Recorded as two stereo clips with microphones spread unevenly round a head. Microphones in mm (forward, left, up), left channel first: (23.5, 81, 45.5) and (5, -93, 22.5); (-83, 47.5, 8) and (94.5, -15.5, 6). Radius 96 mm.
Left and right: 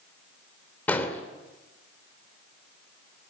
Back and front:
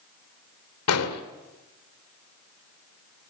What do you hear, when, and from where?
0.9 s an explosion: 165° left, 2.5 m